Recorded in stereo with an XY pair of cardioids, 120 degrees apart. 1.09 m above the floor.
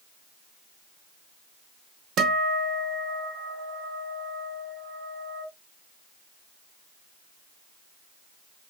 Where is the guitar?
65° right, 0.6 m.